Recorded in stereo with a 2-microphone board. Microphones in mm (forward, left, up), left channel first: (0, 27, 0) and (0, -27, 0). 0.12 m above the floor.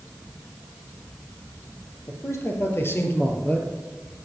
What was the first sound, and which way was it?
A man speaking, 60° left (ahead or behind).